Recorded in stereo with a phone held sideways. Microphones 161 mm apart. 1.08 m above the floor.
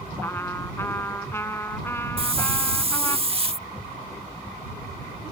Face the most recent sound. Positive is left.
turn(degrees=-35)  # may be behind; listen again after turning